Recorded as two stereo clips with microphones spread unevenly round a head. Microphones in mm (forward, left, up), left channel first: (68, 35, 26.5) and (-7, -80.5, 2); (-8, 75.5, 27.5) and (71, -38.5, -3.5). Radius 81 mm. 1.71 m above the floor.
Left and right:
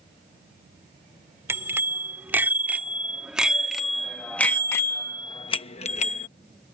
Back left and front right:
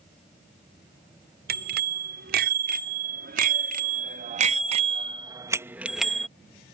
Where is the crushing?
I don't hear crushing.